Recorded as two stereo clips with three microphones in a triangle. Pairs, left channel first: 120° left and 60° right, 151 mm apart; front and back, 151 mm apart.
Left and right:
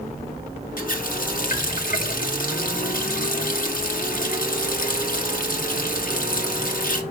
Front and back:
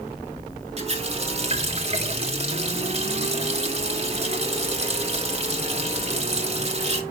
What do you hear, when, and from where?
0.8 s a running tap: 135° left, 1.4 m